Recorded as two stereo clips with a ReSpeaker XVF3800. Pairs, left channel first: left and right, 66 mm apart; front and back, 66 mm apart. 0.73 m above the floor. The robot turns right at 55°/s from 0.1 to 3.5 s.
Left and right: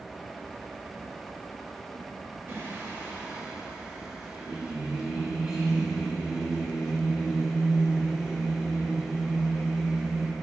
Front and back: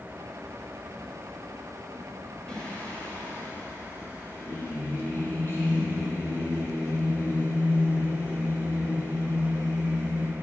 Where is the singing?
70° right, 0.6 m; by 10.3 s 15° right, 0.6 m.